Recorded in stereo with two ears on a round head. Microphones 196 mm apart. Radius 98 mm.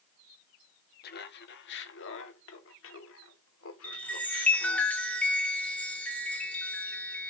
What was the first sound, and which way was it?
Laughter, 45° left (ahead or behind).